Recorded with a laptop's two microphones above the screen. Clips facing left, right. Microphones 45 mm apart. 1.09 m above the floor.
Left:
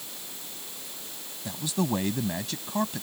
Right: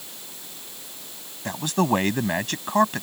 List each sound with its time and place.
1.4 s a man speaking: 60° right (ahead or behind)